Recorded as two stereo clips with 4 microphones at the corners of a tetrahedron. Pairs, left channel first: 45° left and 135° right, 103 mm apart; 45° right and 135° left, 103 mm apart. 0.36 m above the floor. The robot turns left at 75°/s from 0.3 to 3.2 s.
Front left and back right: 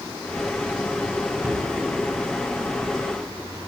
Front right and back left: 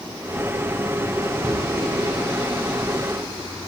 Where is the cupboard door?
160° right, 1.1 m; by 1.6 s 175° right, 1.1 m.